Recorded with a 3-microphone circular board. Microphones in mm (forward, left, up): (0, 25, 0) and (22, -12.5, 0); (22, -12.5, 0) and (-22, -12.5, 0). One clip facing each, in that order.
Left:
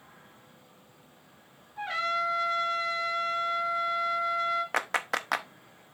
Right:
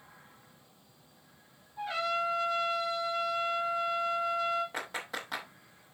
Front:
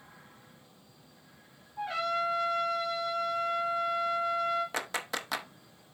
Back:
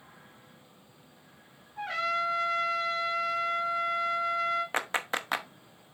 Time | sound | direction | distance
1.8 | a trumpet | 160° left | 2.5 m
4.7 | a clap | 120° left | 0.7 m